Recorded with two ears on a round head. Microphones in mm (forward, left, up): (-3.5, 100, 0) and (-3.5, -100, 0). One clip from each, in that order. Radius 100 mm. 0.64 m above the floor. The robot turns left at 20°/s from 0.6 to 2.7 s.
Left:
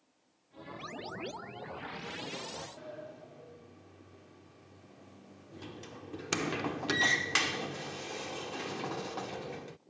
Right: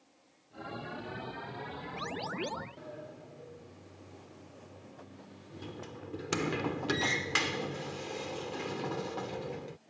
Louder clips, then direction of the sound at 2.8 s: Left 1 dB; 25° left (ahead or behind).